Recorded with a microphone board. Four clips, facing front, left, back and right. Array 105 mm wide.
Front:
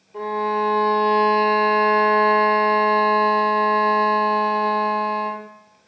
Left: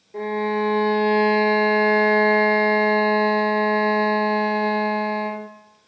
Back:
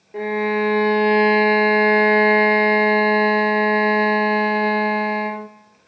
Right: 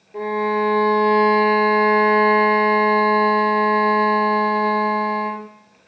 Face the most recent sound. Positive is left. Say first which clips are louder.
# right 3 dB, back 1 dB
turn(degrees=175)